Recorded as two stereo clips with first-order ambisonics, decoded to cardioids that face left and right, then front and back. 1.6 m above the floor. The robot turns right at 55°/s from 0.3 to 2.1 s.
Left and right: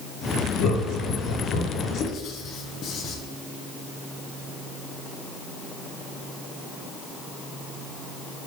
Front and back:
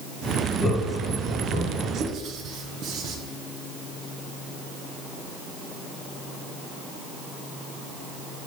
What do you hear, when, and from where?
0.6 s laughter: 80° left, 1.5 m; by 1.9 s 150° left, 1.5 m
2.0 s writing: 130° left, 0.9 m; by 3.1 s 135° left, 0.9 m